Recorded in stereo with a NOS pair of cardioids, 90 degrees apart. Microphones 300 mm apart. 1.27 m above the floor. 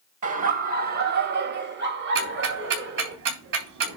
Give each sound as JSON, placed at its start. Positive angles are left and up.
{"t": 0.2, "sound": "laughter", "azimuth_deg": -50, "distance_m": 1.4}
{"t": 2.1, "sound": "ticking", "azimuth_deg": -70, "distance_m": 3.5}